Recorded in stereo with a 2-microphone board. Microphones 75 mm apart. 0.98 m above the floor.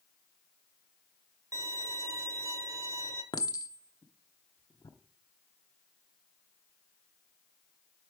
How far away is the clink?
About 0.9 m.